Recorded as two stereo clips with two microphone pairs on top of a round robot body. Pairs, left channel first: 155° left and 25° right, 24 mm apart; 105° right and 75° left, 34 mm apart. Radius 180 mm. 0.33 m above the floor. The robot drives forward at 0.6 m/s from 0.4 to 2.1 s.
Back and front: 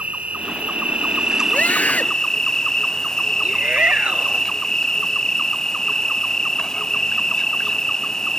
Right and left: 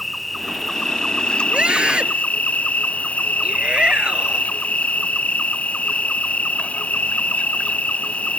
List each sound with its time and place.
0.0 s an insect: 20° right; by 8.4 s 135° right
1.5 s a scream: 135° left
3.4 s a shout: 10° left